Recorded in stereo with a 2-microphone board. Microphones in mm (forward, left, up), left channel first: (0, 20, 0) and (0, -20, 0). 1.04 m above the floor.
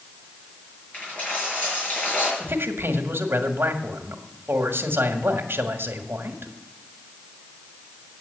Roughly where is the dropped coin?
Left.